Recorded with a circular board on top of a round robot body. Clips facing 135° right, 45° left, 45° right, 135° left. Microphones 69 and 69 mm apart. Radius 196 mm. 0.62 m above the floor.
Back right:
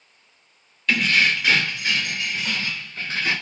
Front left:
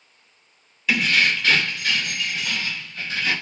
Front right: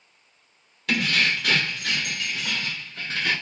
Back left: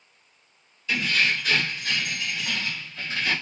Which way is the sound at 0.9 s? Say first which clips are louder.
Even, front right 1 dB; 40° right.